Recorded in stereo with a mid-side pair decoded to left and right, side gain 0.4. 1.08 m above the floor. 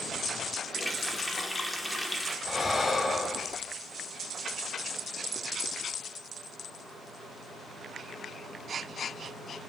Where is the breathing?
30° left, 2.5 m.